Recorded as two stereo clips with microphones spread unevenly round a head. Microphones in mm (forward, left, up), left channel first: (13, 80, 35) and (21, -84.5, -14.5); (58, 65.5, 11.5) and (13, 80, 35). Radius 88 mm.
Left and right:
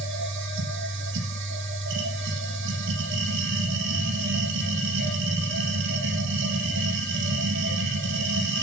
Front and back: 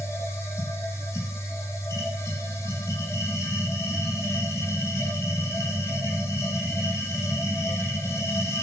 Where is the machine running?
75° right, 7.5 m.